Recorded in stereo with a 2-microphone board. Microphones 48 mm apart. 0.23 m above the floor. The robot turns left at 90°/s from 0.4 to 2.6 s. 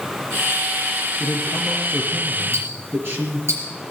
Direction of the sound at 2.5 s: 70° right (ahead or behind).